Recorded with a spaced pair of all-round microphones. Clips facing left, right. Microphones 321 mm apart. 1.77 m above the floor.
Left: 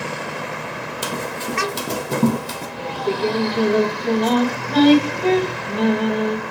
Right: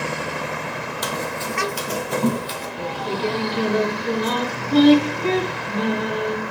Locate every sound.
1.0 s running footsteps: 35° left (ahead or behind), 2.5 m; by 2.7 s 55° left (ahead or behind), 3 m
2.8 s singing: 75° left (ahead or behind), 8.5 m